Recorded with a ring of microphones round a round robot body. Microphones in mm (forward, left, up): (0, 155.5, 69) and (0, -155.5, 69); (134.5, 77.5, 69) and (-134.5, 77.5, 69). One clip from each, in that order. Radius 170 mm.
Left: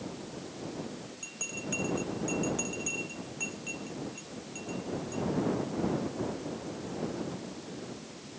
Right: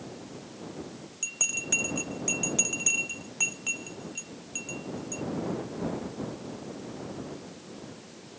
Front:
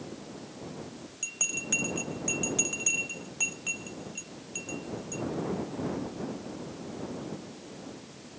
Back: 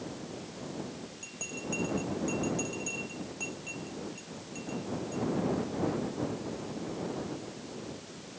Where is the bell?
45° right.